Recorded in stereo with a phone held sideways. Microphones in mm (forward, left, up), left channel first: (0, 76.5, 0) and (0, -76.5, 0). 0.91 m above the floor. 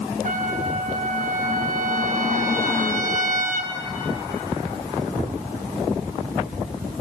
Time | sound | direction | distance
0.2 | a trumpet | 55° right (ahead or behind) | 1.6 m